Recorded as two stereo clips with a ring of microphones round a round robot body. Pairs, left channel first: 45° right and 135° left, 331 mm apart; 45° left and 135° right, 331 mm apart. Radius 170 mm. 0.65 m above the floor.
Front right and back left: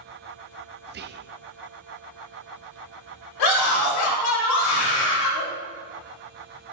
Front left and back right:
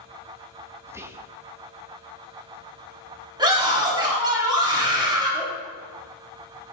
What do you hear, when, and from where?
0.9 s whispering: 150° left, 0.6 m
3.4 s a scream: 60° right, 3.5 m